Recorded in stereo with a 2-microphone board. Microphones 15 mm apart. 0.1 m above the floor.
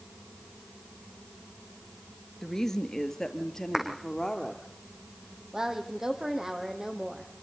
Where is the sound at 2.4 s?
35° left (ahead or behind), 1.6 m; by 4.6 s 40° left (ahead or behind), 3 m.